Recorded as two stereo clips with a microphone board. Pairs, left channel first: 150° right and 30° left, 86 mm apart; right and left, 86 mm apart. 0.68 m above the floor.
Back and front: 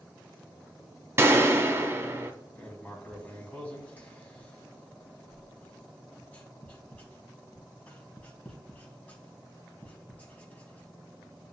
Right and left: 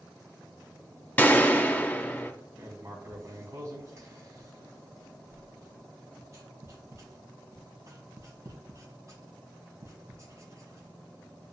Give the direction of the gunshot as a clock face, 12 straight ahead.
1 o'clock.